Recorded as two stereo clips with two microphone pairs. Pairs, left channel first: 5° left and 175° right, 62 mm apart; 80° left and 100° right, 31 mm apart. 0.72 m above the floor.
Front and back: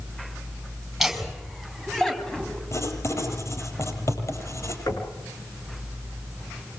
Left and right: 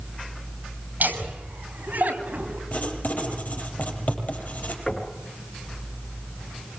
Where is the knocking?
10° left, 6.5 m.